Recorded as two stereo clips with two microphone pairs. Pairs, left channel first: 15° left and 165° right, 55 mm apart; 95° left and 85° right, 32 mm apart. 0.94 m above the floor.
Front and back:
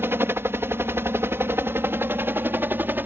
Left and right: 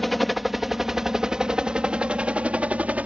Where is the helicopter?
175° left; by 3.1 s 120° right.